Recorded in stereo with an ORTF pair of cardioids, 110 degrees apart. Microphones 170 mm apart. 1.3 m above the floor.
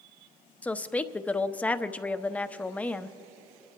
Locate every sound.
0.6 s a woman speaking: 10° left, 0.5 m